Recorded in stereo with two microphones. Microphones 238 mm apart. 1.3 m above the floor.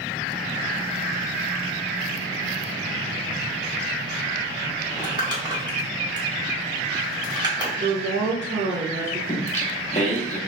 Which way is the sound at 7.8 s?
55° right (ahead or behind).